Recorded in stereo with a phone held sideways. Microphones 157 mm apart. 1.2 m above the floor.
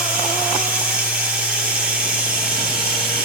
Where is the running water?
10° right (ahead or behind), 4.5 m.